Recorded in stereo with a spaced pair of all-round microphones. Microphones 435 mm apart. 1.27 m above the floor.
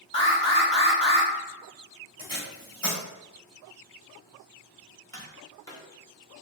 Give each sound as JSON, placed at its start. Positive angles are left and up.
{"t": 0.1, "sound": "an alarm", "side_deg": 15, "distance_m": 1.2}
{"t": 2.2, "sound": "tape being pulled", "side_deg": 10, "distance_m": 1.7}
{"t": 5.1, "sound": "tapping", "side_deg": 10, "distance_m": 0.8}